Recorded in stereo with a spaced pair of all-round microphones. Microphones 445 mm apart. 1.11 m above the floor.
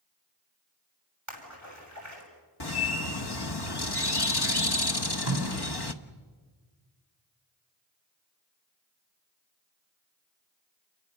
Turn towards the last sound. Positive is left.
turn(degrees=-30)  # may be behind; listen again after turning